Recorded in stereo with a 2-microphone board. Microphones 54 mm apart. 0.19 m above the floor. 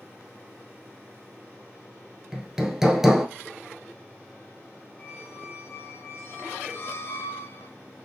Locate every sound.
2.3 s hammering: 10° right (ahead or behind), 0.8 m
5.0 s a squeak: 45° left (ahead or behind), 1.5 m